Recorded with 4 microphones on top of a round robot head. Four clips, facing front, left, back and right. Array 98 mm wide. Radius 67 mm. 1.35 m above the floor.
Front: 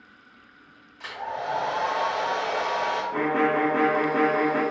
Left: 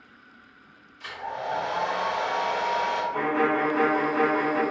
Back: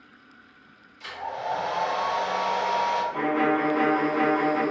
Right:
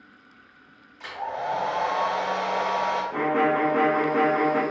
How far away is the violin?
About 0.9 m.